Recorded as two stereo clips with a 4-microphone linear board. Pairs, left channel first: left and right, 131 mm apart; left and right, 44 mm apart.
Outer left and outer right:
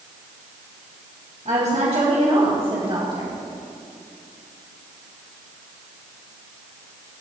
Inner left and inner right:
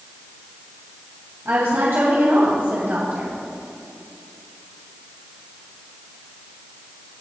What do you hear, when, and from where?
1.4 s a woman speaking: 60° right (ahead or behind), 2.5 m; by 3.4 s 35° right (ahead or behind), 2.5 m